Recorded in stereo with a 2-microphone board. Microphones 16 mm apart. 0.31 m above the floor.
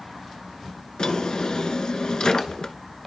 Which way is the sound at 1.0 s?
55° left (ahead or behind).